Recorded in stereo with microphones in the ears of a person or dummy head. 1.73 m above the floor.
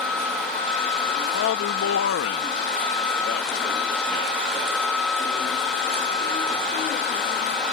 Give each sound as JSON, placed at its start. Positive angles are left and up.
{"t": 1.3, "sound": "a man speaking", "side_deg": 85}